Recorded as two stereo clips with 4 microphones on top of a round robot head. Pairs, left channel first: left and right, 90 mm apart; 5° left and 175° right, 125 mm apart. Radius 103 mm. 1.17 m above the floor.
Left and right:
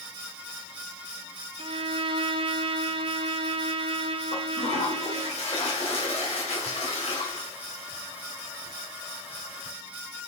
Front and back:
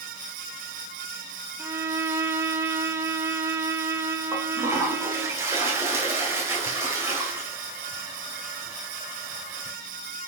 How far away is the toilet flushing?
About 2 m.